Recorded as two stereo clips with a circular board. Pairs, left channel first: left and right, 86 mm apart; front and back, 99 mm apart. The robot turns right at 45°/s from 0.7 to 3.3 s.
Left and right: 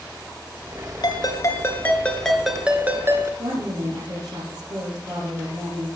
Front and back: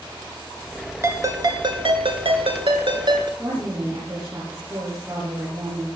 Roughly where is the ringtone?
Behind left.